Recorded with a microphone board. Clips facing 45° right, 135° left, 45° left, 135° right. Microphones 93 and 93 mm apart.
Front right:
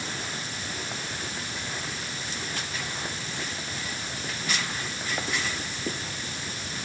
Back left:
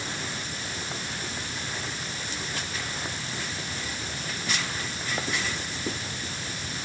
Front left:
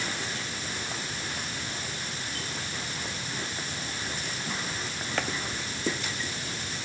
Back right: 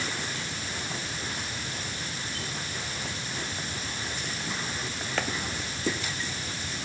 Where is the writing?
No writing in this recording.